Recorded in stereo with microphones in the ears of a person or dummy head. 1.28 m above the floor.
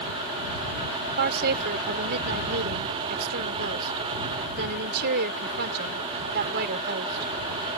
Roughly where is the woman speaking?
Right.